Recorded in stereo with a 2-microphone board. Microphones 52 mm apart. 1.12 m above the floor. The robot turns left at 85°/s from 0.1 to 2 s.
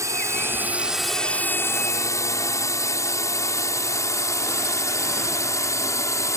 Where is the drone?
65° right (ahead or behind); by 6.4 s 65° left (ahead or behind).